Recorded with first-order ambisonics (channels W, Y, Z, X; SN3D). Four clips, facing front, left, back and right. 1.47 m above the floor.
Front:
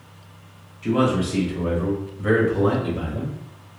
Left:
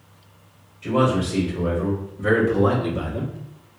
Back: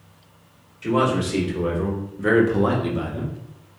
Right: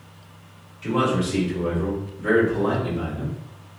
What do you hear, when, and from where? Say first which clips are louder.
0.8 s a man speaking: left 2 dB, even; 165° right, 1.9 m; by 3.3 s 125° left, 1.1 m